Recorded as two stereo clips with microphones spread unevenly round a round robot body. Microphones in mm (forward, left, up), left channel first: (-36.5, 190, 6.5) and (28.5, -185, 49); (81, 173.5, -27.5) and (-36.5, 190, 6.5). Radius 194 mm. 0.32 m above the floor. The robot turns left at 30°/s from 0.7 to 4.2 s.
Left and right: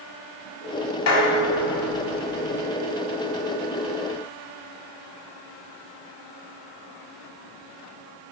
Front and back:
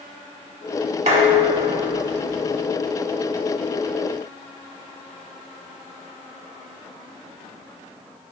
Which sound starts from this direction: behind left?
Dishes clattering, at 1.1 s.